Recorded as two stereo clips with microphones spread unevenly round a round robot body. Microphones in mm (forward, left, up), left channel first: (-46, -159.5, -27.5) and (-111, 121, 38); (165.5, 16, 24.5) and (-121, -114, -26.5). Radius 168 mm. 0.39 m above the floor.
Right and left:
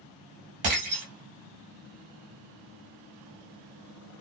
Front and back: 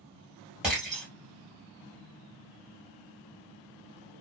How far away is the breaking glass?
About 1.5 m.